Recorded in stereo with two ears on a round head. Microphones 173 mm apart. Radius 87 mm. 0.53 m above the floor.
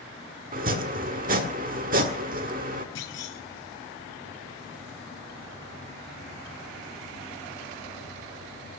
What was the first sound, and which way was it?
Chopping, 45° right (ahead or behind).